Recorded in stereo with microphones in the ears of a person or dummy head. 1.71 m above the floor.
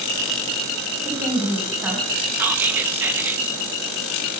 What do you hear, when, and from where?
1.1 s a woman speaking: 10° right (ahead or behind), 1.6 m
2.4 s whispering: 5° right (ahead or behind), 1.3 m